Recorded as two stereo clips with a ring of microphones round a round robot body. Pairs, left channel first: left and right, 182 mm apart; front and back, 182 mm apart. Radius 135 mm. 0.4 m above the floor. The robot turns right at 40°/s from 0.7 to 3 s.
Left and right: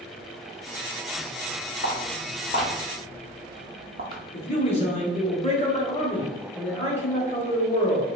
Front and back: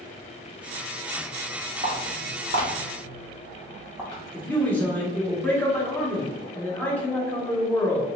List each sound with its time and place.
1.8 s footsteps: 130° left, 1.4 m; by 4.2 s 75° right, 0.6 m
4.3 s a man speaking: 75° left, 0.9 m